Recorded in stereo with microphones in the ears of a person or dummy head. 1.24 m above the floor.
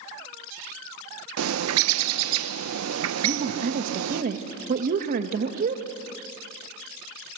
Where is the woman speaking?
45° right (ahead or behind), 1.5 m.